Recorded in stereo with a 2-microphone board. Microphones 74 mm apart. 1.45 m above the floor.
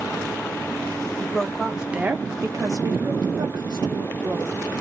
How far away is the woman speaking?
About 0.9 m.